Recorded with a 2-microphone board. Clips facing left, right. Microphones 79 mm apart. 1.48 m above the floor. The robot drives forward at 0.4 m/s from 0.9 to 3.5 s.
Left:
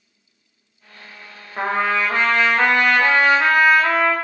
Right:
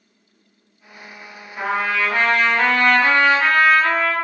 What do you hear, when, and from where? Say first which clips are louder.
1.6 s a trumpet: left 1 dB; 40° left (ahead or behind), 0.6 m; by 4.2 s 15° left (ahead or behind), 1.2 m